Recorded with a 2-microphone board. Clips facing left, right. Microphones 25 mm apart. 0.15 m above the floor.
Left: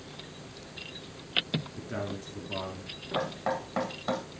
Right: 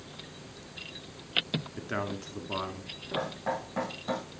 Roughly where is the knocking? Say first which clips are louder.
Left 2 dB; left.